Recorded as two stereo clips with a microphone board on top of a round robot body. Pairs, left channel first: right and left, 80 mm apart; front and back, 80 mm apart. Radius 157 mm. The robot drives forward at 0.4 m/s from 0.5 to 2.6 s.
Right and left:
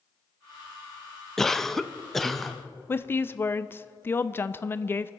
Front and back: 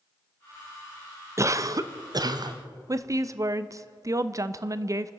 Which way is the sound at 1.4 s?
170° right.